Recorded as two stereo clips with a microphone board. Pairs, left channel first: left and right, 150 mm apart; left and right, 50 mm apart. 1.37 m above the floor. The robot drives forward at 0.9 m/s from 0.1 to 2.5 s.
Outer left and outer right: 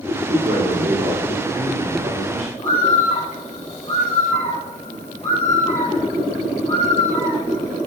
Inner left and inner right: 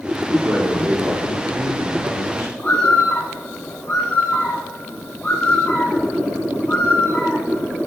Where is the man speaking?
75° right (ahead or behind), 5 m; by 2.5 s 55° right (ahead or behind), 6 m.